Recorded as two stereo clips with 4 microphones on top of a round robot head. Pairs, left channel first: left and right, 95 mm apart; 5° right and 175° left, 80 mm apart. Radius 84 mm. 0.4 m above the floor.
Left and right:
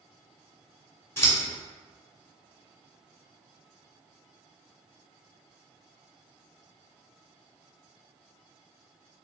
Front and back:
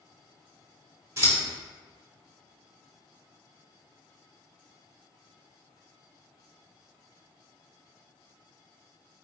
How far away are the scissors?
About 1.4 m.